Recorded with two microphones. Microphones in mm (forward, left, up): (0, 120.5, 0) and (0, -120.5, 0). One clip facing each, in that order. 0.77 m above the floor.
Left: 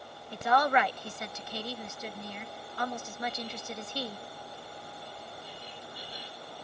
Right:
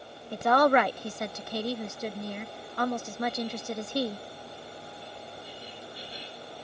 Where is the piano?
No piano in this recording.